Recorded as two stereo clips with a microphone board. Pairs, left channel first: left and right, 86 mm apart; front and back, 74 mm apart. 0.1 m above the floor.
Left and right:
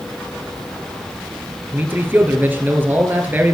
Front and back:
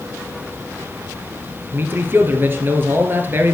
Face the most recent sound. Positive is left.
turn(degrees=-145)